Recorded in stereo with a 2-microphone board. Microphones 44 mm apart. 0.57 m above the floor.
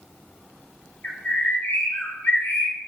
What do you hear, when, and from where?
1.0 s a bird: 40° left (ahead or behind), 0.6 m